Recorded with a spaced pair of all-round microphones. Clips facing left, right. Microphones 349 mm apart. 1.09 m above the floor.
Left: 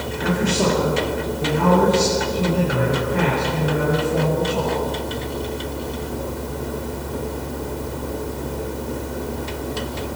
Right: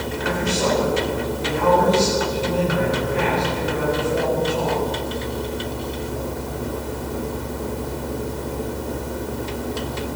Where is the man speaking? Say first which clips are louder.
Left 3 dB; 85° left, 5.5 m.